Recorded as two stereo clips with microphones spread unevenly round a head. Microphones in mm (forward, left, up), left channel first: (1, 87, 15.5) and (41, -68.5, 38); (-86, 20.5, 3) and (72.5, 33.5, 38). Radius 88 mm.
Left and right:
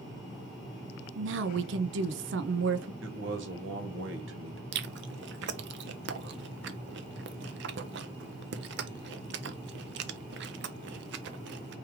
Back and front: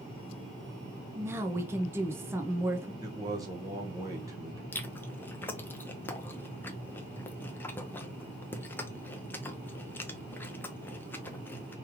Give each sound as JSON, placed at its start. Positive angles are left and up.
{"t": 1.1, "sound": "a woman speaking", "azimuth_deg": -70, "distance_m": 0.5}
{"t": 3.0, "sound": "a man speaking", "azimuth_deg": -65, "distance_m": 1.4}
{"t": 4.7, "sound": "chewing", "azimuth_deg": -100, "distance_m": 0.7}